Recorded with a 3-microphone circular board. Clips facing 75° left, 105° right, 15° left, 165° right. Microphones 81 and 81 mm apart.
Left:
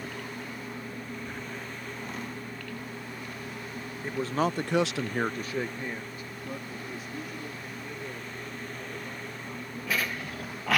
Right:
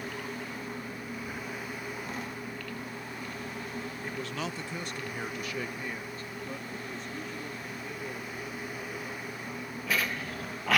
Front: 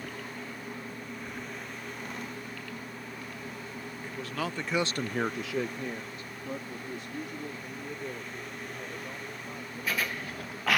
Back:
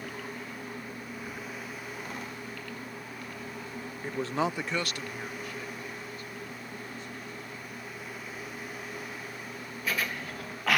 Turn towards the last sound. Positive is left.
turn(degrees=-15)